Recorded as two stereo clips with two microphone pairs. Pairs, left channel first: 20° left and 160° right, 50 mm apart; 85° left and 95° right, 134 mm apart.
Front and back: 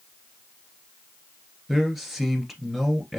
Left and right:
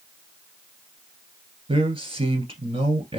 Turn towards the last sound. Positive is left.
turn(degrees=-80)